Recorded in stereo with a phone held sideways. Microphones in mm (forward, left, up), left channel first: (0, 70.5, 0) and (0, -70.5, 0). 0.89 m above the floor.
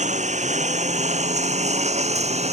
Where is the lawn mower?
55° right (ahead or behind); by 2.5 s 50° right (ahead or behind).